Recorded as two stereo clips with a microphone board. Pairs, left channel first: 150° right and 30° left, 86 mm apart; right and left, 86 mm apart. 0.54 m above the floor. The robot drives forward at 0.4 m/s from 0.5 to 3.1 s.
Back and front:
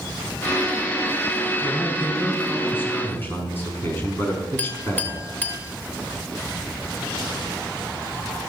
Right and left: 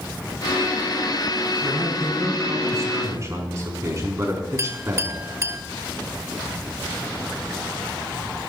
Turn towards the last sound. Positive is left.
turn(degrees=140)